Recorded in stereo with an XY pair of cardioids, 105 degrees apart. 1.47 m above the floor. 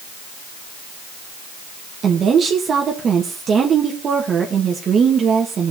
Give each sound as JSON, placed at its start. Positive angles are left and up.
{"t": 2.0, "sound": "a woman speaking", "azimuth_deg": -50, "distance_m": 1.7}